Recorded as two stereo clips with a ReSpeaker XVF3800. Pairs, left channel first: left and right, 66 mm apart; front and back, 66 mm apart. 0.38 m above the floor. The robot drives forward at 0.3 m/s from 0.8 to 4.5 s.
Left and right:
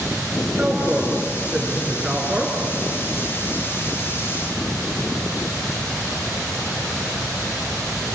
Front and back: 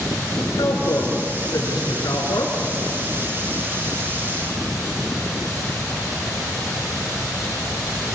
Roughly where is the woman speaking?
Ahead.